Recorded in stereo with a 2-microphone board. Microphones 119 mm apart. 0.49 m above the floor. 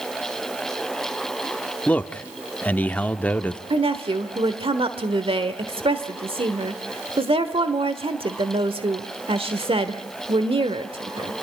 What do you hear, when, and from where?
1.9 s a man speaking: 15° left (ahead or behind), 0.8 m
3.7 s a woman speaking: 50° right (ahead or behind), 1.2 m